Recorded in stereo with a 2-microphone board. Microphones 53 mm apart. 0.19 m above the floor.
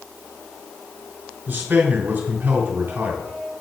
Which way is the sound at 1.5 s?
40° right (ahead or behind).